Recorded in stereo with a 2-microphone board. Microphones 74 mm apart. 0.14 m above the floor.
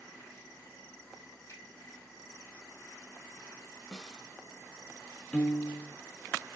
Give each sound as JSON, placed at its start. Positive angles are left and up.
{"t": 1.5, "sound": "a finger snap", "side_deg": 40, "distance_m": 3.0}
{"t": 3.9, "sound": "a snare drum", "side_deg": 10, "distance_m": 1.1}
{"t": 5.3, "sound": "a piano", "side_deg": 15, "distance_m": 1.2}